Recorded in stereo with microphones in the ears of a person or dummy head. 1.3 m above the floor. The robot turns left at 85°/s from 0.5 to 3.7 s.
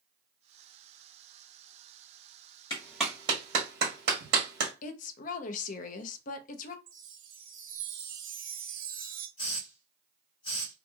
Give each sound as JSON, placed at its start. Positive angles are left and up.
{"t": 2.7, "sound": "a clap", "side_deg": 25, "distance_m": 1.3}
{"t": 4.8, "sound": "a woman speaking", "side_deg": 45, "distance_m": 0.5}
{"t": 6.9, "sound": "a chime", "side_deg": -40, "distance_m": 0.6}
{"t": 9.4, "sound": "a hiss", "side_deg": 30, "distance_m": 1.9}